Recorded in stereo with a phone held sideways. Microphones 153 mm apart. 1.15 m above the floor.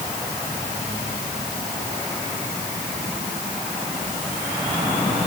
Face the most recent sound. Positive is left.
No sound to turn to.